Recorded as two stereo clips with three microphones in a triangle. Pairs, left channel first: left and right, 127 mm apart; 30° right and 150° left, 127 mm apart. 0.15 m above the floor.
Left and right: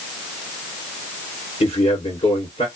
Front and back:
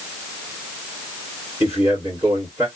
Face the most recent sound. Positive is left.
turn(degrees=90)